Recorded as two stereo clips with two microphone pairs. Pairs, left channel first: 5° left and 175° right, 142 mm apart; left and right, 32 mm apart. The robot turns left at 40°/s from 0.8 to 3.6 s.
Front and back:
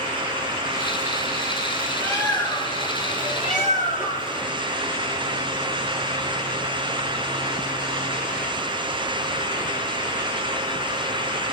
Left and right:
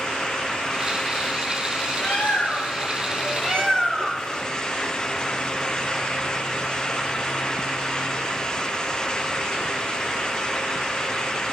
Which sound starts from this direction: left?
A bird, at 2.0 s.